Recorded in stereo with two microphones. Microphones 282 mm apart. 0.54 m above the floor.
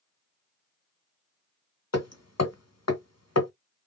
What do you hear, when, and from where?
1.9 s hammering: 70° left (ahead or behind), 1.1 m